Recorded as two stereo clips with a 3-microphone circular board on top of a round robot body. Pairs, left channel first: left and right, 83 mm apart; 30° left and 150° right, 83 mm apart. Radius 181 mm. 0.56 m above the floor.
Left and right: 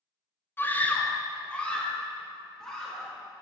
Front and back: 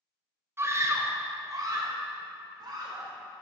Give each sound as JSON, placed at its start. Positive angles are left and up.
{"t": 0.6, "sound": "a scream", "azimuth_deg": 155, "distance_m": 1.0}